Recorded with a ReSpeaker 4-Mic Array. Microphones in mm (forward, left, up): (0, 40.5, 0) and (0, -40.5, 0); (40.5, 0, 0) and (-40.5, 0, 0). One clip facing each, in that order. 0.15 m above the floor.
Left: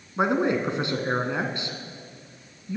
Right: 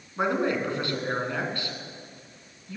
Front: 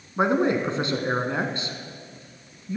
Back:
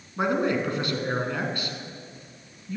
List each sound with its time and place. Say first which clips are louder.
0.2 s a man speaking: left 3 dB, front 3 dB; 40° left, 1.6 m